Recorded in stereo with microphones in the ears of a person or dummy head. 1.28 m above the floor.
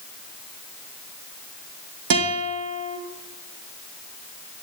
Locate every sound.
2.1 s a guitar: 65° right (ahead or behind), 2 m